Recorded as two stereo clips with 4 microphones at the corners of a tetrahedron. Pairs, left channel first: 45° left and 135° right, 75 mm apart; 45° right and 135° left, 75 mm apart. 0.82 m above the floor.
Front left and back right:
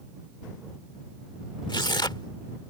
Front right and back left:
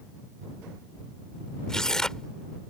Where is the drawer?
I don't hear a drawer.